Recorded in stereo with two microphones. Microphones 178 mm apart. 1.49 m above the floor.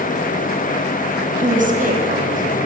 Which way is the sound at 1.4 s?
50° right (ahead or behind).